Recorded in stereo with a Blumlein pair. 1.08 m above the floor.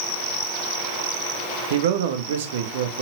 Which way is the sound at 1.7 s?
55° right.